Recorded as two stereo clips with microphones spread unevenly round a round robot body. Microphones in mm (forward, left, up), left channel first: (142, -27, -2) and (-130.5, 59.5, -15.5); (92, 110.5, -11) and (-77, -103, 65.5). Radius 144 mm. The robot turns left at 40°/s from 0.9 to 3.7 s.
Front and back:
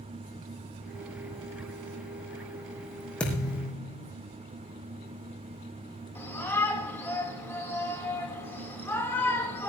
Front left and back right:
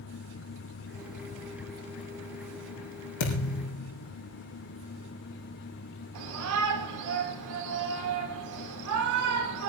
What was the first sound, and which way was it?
A thud, 70° left.